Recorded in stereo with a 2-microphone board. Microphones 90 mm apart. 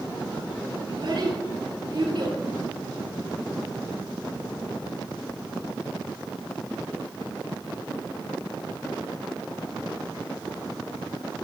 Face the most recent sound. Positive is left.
turn(degrees=-60)  # may be behind; listen again after turning